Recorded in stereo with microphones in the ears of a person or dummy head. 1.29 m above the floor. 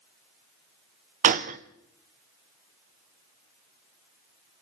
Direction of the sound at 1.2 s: 40° right (ahead or behind).